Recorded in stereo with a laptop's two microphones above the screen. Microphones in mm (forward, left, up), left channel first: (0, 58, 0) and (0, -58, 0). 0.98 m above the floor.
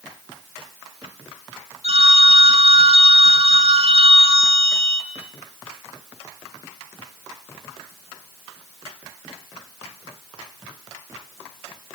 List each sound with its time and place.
1.8 s a phone ringing: 70° right (ahead or behind), 2.5 m